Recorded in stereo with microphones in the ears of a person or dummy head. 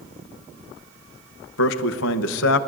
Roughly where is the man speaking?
Left.